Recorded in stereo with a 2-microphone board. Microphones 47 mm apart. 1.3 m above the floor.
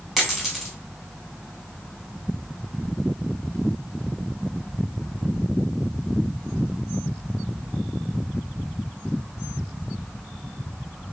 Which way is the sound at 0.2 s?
5° right (ahead or behind).